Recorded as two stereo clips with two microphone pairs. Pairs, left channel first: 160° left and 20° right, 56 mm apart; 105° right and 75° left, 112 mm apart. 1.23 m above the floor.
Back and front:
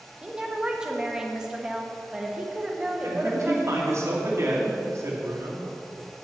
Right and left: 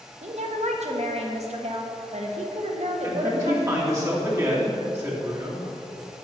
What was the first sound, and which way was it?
A woman speaking, 55° left.